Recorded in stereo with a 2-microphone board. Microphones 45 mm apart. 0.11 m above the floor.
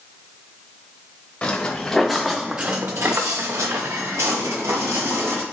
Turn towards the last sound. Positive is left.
turn(degrees=-80)